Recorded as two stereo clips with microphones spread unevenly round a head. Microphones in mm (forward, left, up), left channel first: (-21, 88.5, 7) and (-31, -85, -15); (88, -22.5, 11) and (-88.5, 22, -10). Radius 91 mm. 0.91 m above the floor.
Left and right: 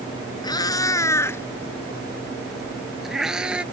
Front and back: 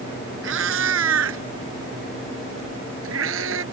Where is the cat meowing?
150° left; by 3.6 s straight behind.